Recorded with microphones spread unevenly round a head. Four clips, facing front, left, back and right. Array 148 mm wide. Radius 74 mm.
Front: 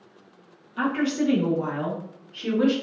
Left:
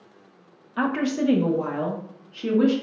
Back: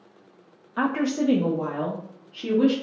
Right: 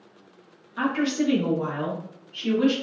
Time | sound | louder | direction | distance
0.8 | a woman speaking | left 1 dB, even | 155° left | 0.6 m